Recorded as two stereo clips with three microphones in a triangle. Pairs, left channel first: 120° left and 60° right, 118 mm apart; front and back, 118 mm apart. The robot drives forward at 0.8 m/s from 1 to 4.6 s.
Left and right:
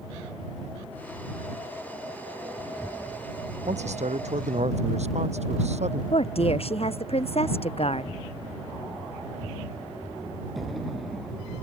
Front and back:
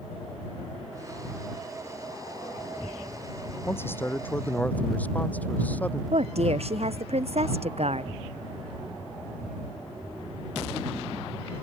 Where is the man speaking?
70° right; by 6.0 s 75° right.